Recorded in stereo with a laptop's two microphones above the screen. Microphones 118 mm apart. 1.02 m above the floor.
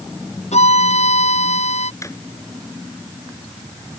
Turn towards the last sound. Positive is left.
turn(degrees=25)  # may be behind; listen again after turning